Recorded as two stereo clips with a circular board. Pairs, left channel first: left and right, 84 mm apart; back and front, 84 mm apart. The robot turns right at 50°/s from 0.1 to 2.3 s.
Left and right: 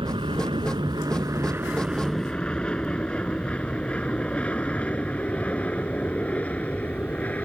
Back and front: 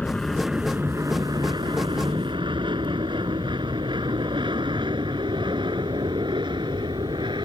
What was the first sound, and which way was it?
An aircraft, 100° right.